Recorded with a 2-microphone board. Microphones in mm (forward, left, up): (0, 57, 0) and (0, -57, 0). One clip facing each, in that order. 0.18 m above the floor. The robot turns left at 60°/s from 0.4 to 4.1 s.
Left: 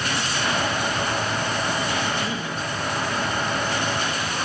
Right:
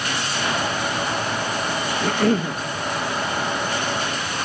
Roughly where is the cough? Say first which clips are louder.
Right 7 dB; right.